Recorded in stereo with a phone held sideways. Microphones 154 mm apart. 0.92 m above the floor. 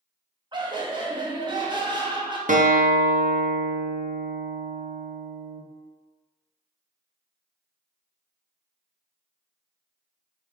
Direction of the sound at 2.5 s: 55° right (ahead or behind).